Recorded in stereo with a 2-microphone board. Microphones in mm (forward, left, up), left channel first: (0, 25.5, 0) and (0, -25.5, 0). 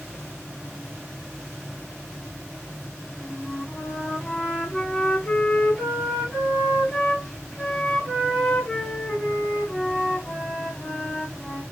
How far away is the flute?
About 3.5 m.